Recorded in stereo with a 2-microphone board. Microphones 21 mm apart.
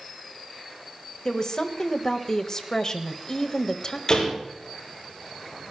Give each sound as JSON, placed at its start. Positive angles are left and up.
{"t": 1.2, "sound": "a woman speaking", "side_deg": 35, "distance_m": 1.5}
{"t": 4.1, "sound": "a door slam", "side_deg": 30, "distance_m": 6.5}